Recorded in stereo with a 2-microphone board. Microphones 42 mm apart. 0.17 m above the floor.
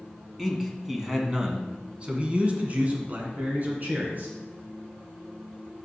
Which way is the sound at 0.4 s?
Centre (ahead or behind).